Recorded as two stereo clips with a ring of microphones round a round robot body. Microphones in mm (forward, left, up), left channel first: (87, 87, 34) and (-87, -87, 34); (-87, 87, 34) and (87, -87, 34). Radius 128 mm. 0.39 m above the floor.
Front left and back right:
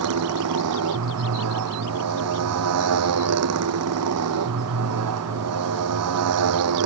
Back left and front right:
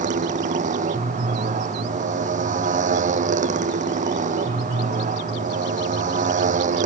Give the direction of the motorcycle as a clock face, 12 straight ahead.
4 o'clock.